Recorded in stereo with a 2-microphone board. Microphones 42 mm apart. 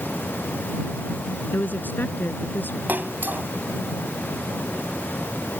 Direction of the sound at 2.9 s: 50° right (ahead or behind).